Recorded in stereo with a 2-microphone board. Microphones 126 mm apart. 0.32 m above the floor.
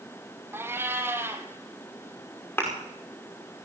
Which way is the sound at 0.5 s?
20° right (ahead or behind).